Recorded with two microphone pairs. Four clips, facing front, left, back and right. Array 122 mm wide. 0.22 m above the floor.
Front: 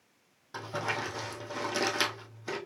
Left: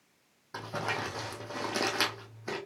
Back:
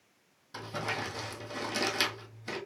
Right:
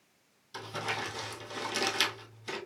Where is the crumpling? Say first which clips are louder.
Left 2 dB, front 2 dB; 60° left, 1.4 m.